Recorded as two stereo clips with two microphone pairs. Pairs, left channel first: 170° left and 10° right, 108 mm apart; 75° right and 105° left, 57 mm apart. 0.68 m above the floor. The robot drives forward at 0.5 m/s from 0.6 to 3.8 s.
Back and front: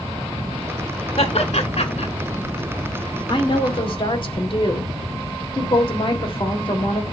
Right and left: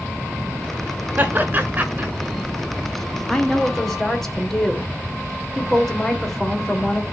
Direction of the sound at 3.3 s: 155° right.